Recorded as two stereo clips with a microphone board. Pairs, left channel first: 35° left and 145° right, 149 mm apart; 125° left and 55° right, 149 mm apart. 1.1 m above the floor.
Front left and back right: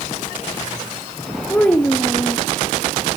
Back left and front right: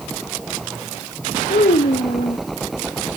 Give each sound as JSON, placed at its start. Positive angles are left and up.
{"t": 1.5, "sound": "a child speaking", "azimuth_deg": 110, "distance_m": 0.9}